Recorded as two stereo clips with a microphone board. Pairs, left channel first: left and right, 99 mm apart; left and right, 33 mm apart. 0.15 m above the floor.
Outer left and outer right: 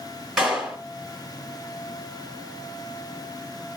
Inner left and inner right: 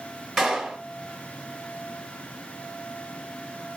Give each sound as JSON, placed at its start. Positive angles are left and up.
{"t": 0.4, "sound": "a clap", "side_deg": -5, "distance_m": 1.6}